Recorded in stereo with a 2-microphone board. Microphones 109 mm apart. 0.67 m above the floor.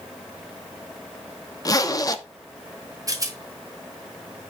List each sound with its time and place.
1.6 s a zipper: 35° left (ahead or behind), 0.9 m
3.1 s a rattle: 35° right (ahead or behind), 2.0 m